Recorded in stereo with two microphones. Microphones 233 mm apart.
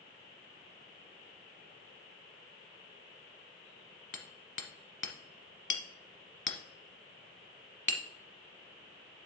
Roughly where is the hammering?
Left.